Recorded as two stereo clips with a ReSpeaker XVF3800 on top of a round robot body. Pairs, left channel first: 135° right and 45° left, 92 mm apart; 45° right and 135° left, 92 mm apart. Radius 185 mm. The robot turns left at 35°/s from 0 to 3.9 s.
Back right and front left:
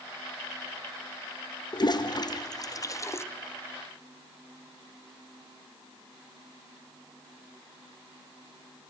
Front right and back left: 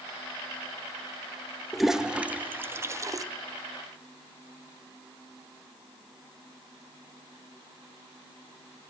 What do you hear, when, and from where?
1.7 s a toilet flushing: 135° right, 1.3 m; by 3.2 s 170° left, 1.3 m